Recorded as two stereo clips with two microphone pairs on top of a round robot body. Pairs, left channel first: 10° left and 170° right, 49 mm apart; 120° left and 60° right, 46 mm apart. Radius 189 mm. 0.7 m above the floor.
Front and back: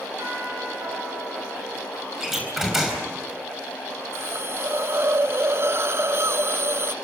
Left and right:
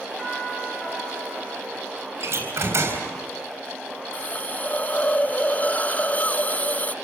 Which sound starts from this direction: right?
A door slam, at 2.2 s.